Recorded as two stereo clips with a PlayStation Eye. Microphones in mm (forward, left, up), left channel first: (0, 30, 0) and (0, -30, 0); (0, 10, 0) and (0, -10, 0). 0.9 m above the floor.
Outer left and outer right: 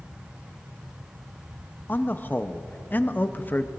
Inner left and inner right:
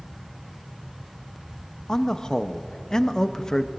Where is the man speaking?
30° left (ahead or behind), 0.7 m.